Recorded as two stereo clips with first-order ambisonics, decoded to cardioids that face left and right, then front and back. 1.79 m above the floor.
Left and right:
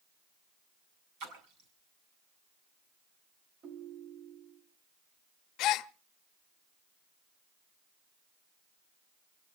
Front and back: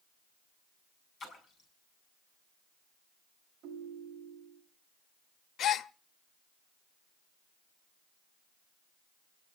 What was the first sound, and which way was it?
A splash, 65° right.